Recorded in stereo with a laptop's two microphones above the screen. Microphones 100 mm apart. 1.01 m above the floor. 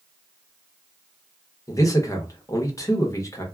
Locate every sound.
1.7 s a man speaking: 30° left (ahead or behind), 1.0 m